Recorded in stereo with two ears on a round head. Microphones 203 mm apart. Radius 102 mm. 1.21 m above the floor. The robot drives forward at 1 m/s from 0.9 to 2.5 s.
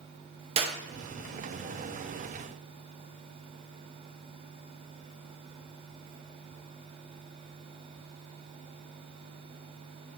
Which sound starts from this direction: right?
A clap, at 0.6 s.